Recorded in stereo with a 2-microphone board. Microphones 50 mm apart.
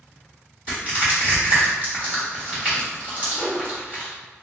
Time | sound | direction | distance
0.7 | crushing | 30° right (ahead or behind) | 1.5 m
3.3 | a whoosh | 10° right (ahead or behind) | 1.9 m